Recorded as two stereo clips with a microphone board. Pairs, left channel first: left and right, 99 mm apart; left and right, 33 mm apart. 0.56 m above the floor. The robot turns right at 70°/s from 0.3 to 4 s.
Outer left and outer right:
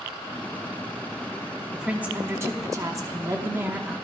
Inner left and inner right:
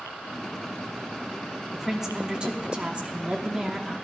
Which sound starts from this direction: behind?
A woman speaking, at 1.7 s.